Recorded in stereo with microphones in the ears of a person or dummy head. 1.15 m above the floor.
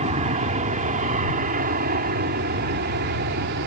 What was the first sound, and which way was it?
An aircraft, 30° right (ahead or behind).